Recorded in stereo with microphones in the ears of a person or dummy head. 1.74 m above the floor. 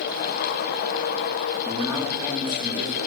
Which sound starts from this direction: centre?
A man speaking, at 1.6 s.